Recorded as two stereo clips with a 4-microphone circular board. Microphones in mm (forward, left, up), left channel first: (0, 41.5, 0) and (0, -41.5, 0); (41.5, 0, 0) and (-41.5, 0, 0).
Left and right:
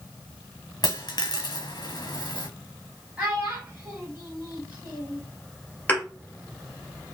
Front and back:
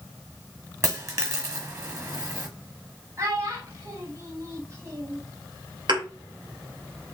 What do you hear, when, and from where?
0.8 s a dropped coin: 130° left, 1.0 m
3.2 s a child speaking: 155° right, 1.0 m
5.9 s a thud: 160° left, 1.8 m